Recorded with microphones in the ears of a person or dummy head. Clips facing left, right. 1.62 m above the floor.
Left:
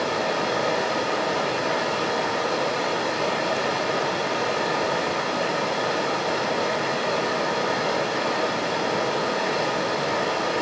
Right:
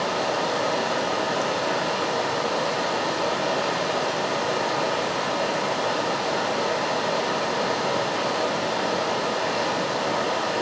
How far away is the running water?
About 4 m.